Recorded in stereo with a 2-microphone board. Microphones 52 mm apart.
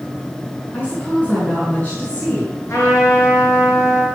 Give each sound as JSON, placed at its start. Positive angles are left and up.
{"t": 0.7, "sound": "a woman speaking", "side_deg": 25, "distance_m": 6.0}
{"t": 2.7, "sound": "a trumpet", "side_deg": 50, "distance_m": 5.5}